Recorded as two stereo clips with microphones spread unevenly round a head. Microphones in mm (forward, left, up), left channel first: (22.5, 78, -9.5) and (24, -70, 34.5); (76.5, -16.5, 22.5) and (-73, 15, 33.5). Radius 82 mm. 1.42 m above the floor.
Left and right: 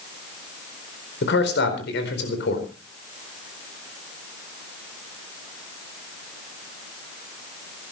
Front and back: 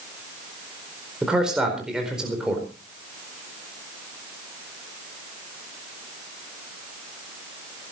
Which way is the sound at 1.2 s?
85° left.